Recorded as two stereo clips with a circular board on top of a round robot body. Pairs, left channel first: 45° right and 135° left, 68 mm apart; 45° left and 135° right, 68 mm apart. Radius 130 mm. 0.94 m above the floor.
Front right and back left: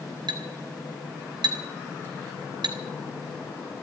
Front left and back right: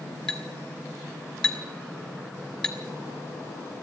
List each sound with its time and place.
0.3 s a clink: 130° left, 1.8 m